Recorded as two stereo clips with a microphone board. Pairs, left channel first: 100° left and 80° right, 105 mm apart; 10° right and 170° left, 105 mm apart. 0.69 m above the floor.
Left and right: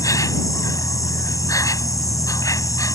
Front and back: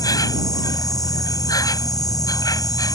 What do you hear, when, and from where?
0.0 s an insect: 45° left